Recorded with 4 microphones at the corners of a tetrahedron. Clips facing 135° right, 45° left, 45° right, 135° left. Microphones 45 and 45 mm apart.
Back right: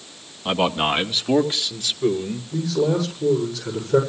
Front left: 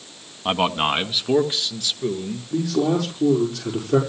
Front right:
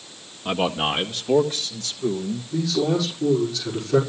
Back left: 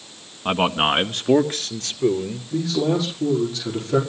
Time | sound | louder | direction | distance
0.5 | a man speaking | even, back left 3 dB | 105° left | 1.2 m
2.5 | a man speaking | front left 1 dB, back left 1 dB | 70° left | 6.5 m